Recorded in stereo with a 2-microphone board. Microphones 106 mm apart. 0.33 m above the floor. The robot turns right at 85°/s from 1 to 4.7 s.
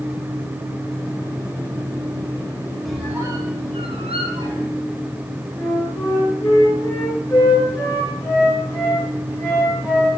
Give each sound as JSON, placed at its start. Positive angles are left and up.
{"t": 2.9, "sound": "a squeak", "side_deg": 0, "distance_m": 2.5}
{"t": 5.5, "sound": "a flute", "side_deg": 25, "distance_m": 5.0}